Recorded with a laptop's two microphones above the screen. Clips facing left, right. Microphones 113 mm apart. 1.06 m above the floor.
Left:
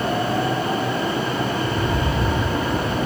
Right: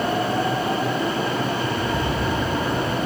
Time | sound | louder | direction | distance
1.6 | a rattle | left 1 dB | 80° left | 3.5 m